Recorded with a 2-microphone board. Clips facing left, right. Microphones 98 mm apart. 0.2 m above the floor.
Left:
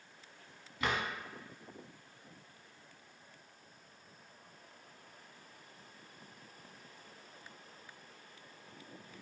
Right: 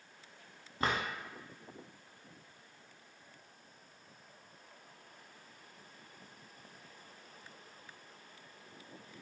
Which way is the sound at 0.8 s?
35° right (ahead or behind).